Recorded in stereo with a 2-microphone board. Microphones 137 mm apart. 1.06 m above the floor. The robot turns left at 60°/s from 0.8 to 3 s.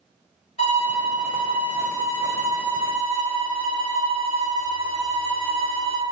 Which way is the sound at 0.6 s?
95° left.